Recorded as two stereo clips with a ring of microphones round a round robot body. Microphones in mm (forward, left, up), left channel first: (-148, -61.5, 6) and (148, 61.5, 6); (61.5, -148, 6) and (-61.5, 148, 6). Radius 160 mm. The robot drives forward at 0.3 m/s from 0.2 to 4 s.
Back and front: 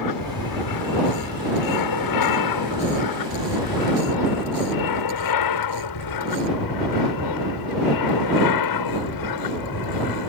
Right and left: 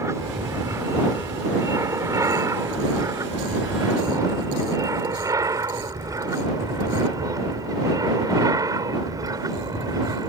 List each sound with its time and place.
0.0 s an aircraft: 165° right; by 10.3 s 170° right